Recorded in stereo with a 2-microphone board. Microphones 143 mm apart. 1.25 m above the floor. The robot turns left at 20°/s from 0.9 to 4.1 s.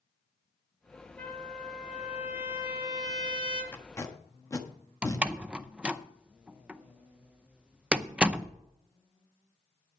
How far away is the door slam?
About 0.6 m.